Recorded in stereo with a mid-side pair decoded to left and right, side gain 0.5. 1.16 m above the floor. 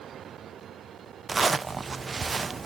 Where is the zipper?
25° right, 0.5 m.